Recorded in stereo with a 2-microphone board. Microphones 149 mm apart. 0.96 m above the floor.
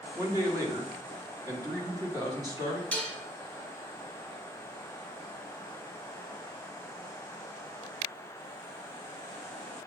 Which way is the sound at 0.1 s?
25° right (ahead or behind).